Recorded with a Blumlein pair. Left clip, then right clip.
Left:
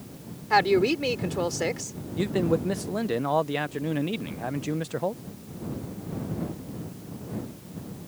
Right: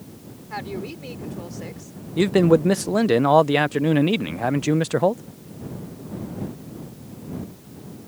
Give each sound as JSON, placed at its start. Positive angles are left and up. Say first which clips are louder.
{"t": 0.5, "sound": "a woman speaking", "louder": "left 11 dB", "azimuth_deg": 30}
{"t": 2.2, "sound": "a man speaking", "louder": "right 9 dB", "azimuth_deg": -65}